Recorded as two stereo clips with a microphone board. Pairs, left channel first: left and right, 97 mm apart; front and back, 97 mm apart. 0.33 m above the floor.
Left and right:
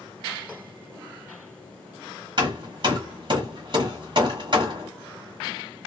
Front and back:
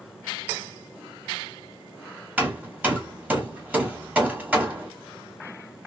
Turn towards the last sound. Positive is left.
turn(degrees=-105)